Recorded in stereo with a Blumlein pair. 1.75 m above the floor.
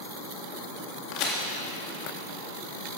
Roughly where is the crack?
Ahead left.